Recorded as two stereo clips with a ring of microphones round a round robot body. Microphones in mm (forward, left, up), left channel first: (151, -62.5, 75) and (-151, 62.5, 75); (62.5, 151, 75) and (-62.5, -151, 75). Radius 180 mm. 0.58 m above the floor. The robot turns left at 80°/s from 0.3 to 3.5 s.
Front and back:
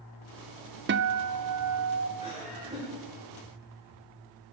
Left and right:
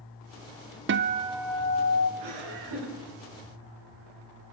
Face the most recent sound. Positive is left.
turn(degrees=165)